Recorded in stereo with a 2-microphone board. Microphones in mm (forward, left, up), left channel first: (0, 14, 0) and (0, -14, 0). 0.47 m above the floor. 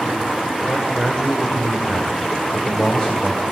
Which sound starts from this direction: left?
A man speaking, at 0.6 s.